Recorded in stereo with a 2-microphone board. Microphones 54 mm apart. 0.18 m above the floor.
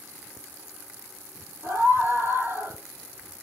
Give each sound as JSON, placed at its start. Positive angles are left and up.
{"t": 1.6, "sound": "a scream", "side_deg": -50, "distance_m": 4.0}